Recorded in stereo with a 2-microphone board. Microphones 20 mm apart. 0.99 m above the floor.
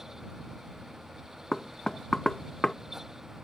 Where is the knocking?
30° left (ahead or behind).